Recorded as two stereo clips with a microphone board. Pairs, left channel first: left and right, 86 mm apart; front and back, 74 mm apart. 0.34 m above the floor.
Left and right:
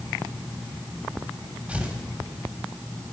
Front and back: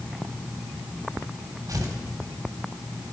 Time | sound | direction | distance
1.7 | tearing paper | 165° right | 2.5 m